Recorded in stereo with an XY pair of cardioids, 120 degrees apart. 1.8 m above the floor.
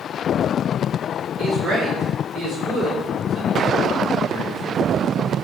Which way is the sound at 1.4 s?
65° right.